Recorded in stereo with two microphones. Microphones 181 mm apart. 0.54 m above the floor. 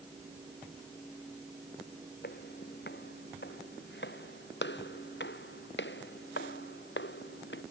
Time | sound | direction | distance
2.2 | footsteps | 65° left (ahead or behind) | ?